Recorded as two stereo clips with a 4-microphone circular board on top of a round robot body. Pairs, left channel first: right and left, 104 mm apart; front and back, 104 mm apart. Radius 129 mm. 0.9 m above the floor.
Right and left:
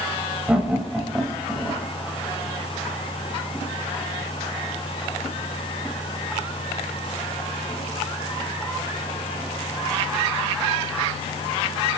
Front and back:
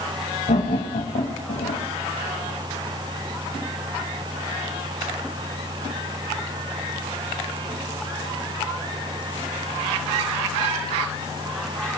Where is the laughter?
10° left, 4.5 m; by 1.8 s 5° right, 4.5 m.